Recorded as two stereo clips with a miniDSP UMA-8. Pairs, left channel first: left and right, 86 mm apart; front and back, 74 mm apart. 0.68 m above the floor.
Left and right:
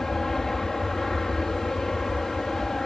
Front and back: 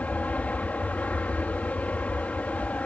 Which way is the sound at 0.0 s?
15° left.